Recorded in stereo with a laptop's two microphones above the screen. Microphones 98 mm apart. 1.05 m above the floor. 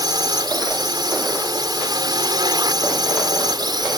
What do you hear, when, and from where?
0.0 s a drone: 50° right (ahead or behind)